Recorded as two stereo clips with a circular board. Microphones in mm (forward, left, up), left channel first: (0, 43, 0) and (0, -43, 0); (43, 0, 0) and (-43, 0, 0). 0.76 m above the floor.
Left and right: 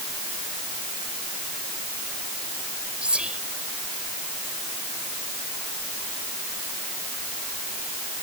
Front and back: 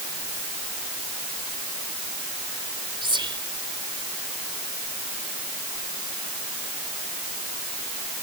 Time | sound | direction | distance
3.0 | whispering | 165° right | ?